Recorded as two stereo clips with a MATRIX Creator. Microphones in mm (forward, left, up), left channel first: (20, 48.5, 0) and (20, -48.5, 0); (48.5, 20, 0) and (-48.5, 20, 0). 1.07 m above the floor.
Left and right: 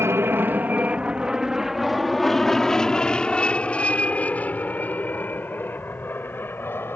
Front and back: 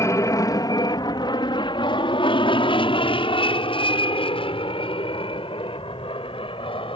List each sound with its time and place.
0.0 s an aircraft: 40° right; by 7.0 s 20° left